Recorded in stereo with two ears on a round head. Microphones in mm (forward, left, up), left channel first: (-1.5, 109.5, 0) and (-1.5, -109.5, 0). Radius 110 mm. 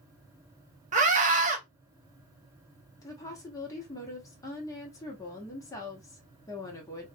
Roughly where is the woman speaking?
Centre.